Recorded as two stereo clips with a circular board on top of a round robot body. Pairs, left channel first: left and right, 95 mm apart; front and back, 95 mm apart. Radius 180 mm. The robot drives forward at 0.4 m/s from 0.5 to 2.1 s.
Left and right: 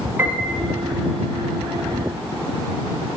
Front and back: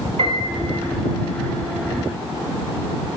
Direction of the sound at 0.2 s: 155° right.